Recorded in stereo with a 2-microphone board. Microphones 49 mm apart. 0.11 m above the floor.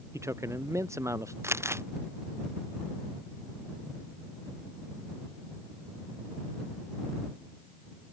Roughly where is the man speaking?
Right.